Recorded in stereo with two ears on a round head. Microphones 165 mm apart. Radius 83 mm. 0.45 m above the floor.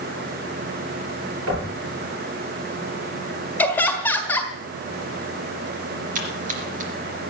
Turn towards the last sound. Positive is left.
turn(degrees=-45)  # may be behind; listen again after turning